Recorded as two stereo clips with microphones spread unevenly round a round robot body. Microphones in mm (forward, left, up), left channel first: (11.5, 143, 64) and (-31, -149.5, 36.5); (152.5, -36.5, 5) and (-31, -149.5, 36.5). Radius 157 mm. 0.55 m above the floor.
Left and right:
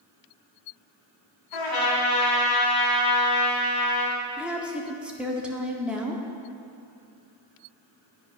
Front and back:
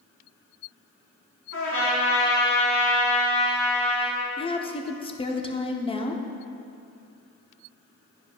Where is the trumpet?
75° left, 3 m.